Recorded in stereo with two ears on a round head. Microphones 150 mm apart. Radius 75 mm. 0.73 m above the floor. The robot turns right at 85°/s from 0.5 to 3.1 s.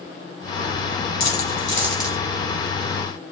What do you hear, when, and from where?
1.2 s a dropped coin: 65° left (ahead or behind), 2 m; by 2.2 s 20° right (ahead or behind), 2 m